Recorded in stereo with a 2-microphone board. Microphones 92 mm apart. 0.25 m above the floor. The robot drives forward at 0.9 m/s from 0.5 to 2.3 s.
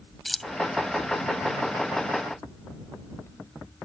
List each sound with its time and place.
0.2 s keys jangling: centre (ahead or behind)